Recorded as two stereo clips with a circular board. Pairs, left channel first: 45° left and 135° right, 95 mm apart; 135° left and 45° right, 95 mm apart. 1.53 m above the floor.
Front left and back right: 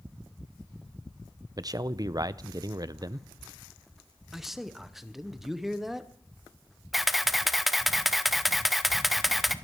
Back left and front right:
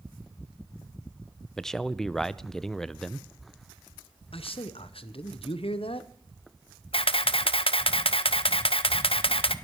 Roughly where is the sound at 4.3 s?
Behind left.